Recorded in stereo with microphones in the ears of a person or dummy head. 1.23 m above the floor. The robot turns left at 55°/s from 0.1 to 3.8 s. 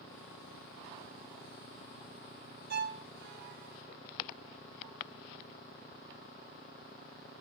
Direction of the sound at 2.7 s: 50° right (ahead or behind).